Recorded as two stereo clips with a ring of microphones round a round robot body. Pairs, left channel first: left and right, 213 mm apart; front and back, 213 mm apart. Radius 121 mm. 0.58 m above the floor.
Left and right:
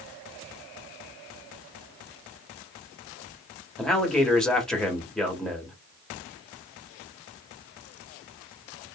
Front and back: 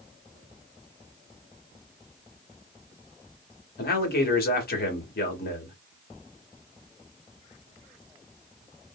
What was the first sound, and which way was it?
A man speaking, 5° left.